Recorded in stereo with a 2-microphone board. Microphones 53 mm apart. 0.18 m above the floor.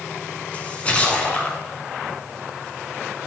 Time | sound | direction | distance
0.5 | a splash | 25° left (ahead or behind) | 1.7 m